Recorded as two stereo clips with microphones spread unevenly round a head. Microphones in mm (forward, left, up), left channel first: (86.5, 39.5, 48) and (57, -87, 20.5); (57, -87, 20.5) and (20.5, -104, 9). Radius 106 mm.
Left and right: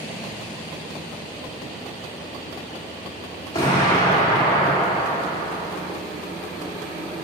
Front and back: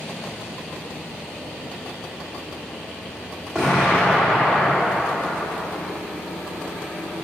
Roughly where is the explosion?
Left.